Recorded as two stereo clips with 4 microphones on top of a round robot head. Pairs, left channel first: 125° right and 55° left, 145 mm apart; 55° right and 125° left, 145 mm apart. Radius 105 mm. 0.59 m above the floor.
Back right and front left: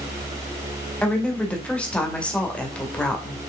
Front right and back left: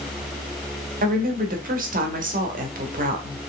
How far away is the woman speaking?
About 2 m.